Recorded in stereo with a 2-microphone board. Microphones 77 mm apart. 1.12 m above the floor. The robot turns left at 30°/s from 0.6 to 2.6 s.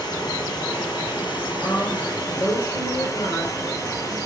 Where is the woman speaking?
115° left, 3.5 m; by 4.2 s 85° left, 3.5 m.